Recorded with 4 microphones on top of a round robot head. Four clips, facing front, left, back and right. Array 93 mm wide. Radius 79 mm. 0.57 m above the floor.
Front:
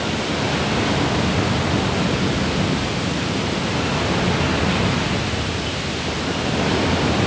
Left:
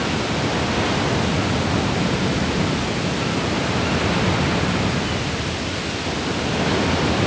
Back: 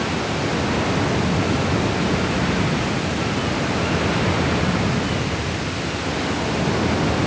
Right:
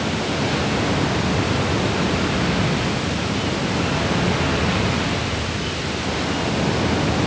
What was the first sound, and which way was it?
Only background noise.